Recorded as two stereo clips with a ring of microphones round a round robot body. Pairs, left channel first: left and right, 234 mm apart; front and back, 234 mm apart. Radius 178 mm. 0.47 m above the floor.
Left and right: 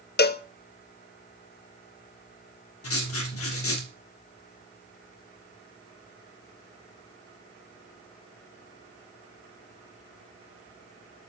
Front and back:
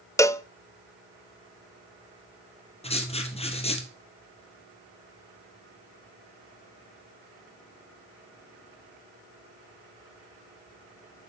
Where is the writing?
65° left, 2.5 m.